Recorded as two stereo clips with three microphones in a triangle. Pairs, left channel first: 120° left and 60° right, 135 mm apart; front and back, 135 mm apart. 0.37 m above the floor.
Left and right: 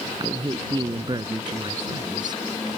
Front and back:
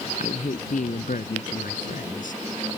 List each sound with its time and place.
0.2 s a man speaking: 5° right; by 2.4 s straight ahead